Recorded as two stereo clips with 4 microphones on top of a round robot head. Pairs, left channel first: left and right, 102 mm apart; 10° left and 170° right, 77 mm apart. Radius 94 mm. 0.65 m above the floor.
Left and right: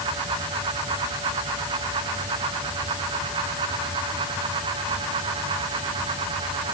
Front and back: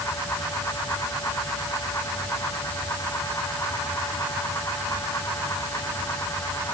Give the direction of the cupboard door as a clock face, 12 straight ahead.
No cupboard door in this recording.